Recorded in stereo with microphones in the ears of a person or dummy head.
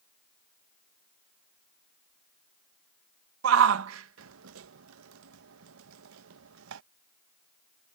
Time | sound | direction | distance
3.4 | a shout | 75° right (ahead or behind) | ?